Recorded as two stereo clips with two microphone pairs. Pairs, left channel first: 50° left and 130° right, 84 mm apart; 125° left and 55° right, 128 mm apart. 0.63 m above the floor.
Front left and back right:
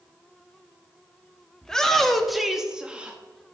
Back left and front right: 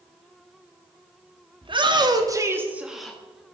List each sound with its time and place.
1.6 s a shout: 30° right, 1.0 m; by 3.2 s 165° right, 0.7 m